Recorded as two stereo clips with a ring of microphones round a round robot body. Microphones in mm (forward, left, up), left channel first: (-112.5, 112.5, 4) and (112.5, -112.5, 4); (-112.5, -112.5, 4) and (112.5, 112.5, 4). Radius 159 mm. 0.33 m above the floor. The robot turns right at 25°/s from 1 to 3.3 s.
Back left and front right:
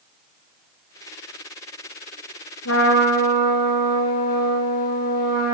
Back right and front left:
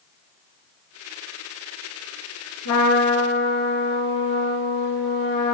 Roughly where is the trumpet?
Behind.